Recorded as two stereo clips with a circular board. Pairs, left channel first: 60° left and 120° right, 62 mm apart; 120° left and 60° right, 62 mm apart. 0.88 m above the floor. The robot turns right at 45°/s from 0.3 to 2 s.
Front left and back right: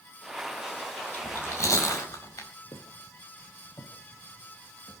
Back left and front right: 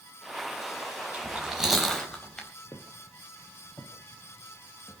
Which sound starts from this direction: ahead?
Chewing, at 1.1 s.